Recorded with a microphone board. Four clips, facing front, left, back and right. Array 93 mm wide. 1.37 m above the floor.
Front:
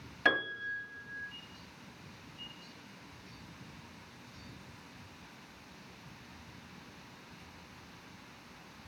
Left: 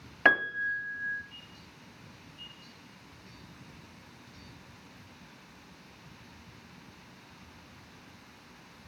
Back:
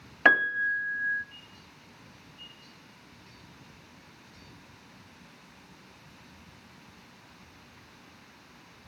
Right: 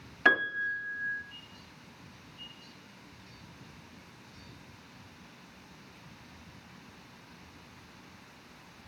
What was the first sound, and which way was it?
A piano, 145° left.